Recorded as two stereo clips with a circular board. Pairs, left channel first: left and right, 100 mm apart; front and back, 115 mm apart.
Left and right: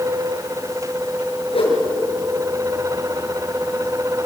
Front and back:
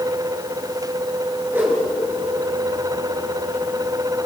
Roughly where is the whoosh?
Left.